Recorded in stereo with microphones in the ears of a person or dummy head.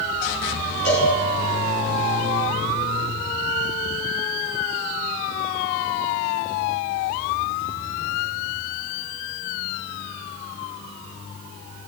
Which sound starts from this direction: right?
A cowbell, at 0.8 s.